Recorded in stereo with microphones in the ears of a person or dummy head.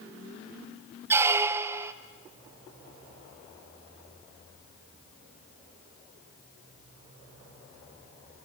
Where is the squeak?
15° right (ahead or behind), 0.6 m.